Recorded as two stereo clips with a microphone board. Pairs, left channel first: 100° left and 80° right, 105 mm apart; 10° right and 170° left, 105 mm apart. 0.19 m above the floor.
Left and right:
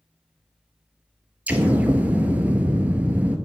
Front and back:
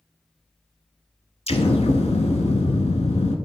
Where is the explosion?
5° right, 0.6 m.